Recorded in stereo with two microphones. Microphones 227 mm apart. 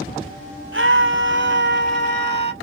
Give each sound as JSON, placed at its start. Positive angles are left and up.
{"t": 0.7, "sound": "a scream", "side_deg": -65, "distance_m": 2.5}